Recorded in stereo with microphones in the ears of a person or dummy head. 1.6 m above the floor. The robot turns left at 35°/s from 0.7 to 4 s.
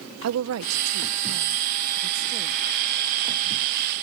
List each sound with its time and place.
0.2 s a woman speaking: 90° right; by 2.6 s 160° right